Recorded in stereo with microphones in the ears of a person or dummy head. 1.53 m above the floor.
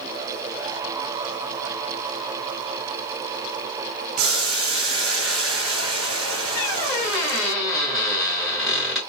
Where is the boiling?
70° right (ahead or behind), 0.9 m.